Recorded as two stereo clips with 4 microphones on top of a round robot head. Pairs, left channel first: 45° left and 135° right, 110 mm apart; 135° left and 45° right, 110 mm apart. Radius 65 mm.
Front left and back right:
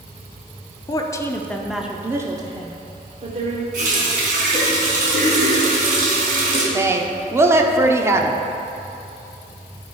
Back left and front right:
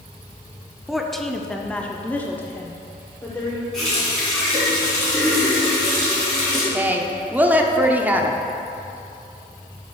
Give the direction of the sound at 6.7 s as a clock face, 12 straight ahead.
3 o'clock.